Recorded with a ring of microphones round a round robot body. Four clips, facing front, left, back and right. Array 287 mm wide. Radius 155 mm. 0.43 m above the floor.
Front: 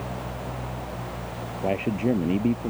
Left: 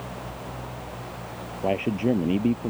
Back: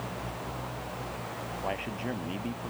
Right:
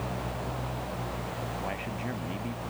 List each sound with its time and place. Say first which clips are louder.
1.6 s a man speaking: left 11 dB, front 11 dB; 50° left